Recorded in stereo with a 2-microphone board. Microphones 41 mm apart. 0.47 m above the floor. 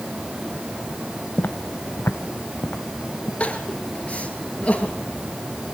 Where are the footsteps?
50° left (ahead or behind), 0.7 m; by 3.3 s 75° left (ahead or behind), 3 m.